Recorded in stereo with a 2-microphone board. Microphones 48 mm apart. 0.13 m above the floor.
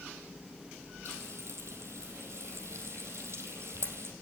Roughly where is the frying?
Right.